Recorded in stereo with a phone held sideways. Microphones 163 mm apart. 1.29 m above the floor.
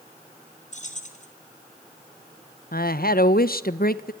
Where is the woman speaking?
75° left (ahead or behind), 1.2 m.